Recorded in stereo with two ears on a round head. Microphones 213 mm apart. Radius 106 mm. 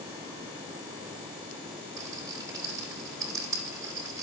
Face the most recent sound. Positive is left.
turn(degrees=-15)  # may be behind; listen again after turning